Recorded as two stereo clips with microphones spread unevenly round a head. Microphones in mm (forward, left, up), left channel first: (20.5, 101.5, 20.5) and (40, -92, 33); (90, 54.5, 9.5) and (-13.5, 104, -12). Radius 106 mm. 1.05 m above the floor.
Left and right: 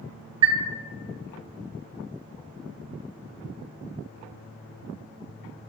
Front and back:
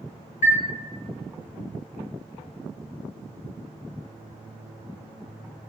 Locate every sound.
0.4 s a chime: 25° right, 1.3 m